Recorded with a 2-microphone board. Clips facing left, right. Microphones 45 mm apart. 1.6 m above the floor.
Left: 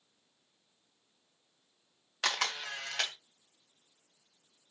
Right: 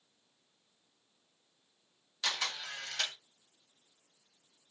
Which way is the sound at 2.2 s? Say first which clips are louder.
Left 3 dB; 55° left (ahead or behind).